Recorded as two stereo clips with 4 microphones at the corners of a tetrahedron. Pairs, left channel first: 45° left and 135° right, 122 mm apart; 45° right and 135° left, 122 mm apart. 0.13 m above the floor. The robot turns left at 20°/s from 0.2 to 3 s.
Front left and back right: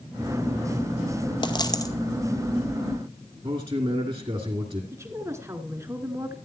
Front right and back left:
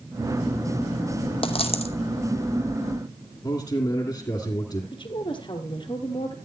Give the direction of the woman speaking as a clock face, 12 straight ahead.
2 o'clock.